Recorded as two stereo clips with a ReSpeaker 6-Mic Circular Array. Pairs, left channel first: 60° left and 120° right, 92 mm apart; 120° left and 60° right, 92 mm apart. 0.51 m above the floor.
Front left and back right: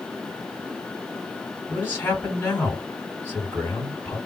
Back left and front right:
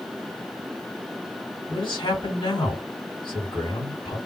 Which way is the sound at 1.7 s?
120° left.